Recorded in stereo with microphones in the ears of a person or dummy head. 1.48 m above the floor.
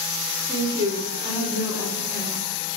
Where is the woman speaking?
20° right (ahead or behind), 3 m.